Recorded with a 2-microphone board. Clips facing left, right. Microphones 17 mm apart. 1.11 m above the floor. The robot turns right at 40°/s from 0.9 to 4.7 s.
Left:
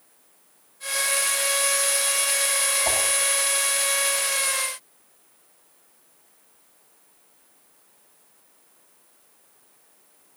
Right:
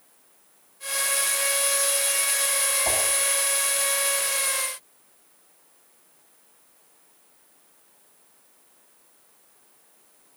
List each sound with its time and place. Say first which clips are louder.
2.9 s a whoosh: left 1 dB; 5° left (ahead or behind), 9 m; by 3.0 s centre (ahead or behind), 9 m